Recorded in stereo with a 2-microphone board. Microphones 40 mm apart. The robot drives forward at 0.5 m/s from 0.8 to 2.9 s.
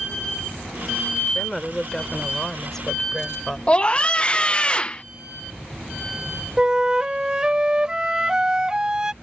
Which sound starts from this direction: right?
A flute, at 6.6 s.